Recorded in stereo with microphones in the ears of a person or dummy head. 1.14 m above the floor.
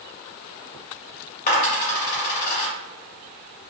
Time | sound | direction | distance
1.5 | a dropped coin | 45° left (ahead or behind) | 1.9 m